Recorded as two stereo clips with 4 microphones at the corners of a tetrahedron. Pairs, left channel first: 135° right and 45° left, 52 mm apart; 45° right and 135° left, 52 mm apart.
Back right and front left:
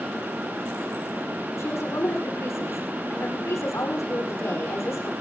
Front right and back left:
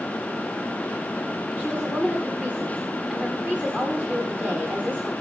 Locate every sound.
1.6 s a woman speaking: 160° right, 9 m